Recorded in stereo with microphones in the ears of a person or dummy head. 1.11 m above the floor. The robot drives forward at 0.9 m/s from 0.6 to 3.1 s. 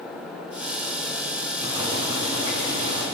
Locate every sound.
1.6 s boiling: 25° right (ahead or behind), 7 m